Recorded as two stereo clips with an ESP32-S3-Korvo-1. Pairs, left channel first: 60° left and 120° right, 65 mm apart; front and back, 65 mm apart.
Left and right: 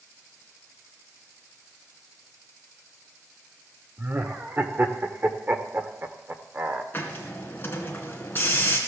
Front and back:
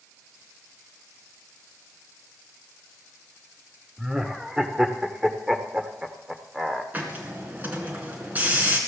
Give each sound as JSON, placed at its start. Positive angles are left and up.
{"t": 4.0, "sound": "laughter", "azimuth_deg": -105, "distance_m": 1.0}
{"t": 6.9, "sound": "a hiss", "azimuth_deg": 120, "distance_m": 2.0}